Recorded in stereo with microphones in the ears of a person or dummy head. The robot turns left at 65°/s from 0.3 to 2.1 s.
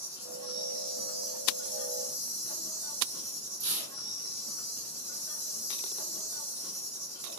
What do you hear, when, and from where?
0.0 s an insect: 15° right, 1.4 m; by 7.4 s 135° right, 1.4 m
3.6 s tearing paper: 45° right (ahead or behind), 1.0 m